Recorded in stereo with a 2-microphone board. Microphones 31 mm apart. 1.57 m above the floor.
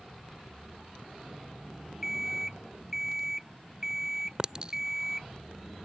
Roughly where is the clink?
Right.